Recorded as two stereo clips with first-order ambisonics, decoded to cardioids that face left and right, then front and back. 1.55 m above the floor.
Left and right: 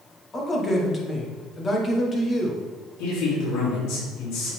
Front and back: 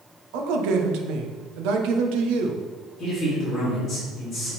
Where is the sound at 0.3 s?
160° left, 1.2 m.